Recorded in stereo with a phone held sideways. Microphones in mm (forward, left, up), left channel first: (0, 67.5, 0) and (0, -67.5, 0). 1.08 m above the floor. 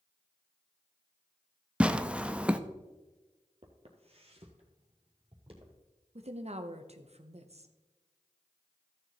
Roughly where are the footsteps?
Right.